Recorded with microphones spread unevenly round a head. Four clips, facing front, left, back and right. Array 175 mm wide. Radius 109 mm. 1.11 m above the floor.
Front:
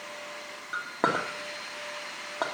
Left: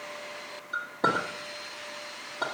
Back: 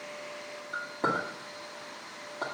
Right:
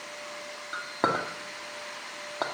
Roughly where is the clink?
Ahead right.